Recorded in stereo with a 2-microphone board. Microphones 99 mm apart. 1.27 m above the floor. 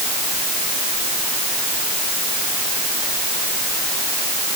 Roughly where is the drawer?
No drawer in this recording.